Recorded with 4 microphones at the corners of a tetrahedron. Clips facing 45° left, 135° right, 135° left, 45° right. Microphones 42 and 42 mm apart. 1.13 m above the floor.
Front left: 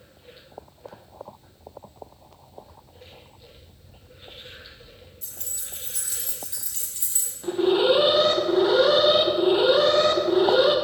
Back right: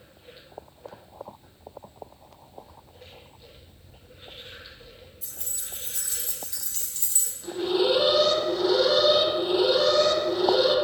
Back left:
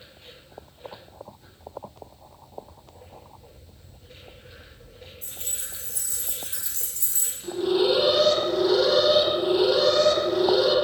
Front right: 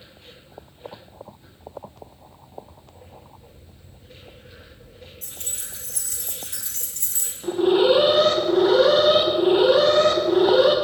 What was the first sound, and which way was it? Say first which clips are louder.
Keys jangling: even, front right 1 dB; 45° right.